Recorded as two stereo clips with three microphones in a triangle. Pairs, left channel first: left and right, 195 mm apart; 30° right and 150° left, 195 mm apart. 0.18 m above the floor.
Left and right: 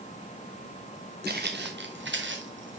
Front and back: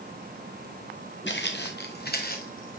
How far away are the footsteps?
About 1.6 m.